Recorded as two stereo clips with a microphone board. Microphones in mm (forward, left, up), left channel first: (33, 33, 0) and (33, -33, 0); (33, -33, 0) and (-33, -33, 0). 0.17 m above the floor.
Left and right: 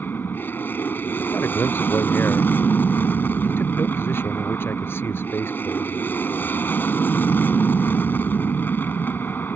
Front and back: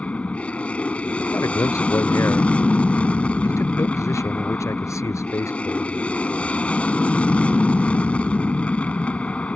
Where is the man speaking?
35° left.